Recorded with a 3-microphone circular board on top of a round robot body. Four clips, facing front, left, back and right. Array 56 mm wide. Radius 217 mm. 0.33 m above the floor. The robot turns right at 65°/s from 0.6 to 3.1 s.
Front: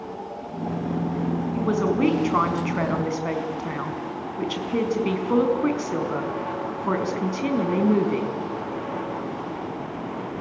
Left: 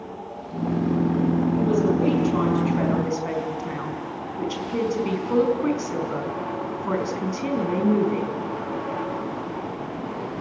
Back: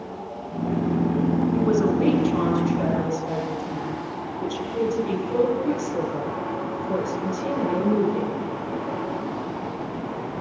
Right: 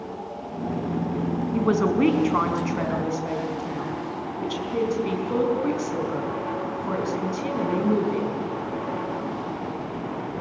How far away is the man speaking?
About 4.5 m.